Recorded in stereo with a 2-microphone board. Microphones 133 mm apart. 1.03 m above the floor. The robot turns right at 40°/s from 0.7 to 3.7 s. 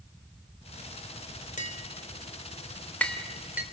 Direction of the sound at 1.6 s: 70° left (ahead or behind).